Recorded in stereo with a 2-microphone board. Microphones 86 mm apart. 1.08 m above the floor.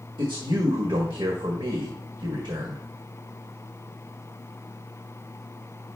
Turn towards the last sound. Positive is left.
turn(degrees=-65)  # may be behind; listen again after turning